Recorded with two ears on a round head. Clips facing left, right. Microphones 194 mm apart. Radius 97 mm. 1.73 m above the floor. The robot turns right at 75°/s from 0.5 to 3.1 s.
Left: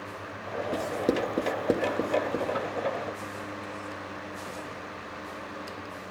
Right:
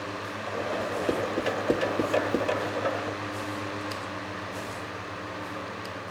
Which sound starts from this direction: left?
Writing, at 0.7 s.